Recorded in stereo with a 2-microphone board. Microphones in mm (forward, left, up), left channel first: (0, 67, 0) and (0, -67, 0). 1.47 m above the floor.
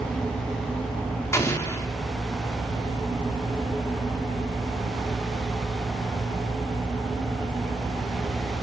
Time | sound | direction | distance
1.3 | an explosion | 20° left (ahead or behind) | 1.5 m